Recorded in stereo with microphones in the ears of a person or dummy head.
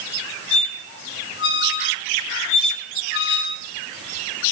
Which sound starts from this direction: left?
A squeak, at 0.5 s.